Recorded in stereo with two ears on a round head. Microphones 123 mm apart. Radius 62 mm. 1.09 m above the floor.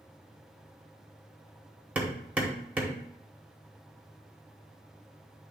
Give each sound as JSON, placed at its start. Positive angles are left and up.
{"t": 1.9, "sound": "hammering", "side_deg": -10, "distance_m": 1.2}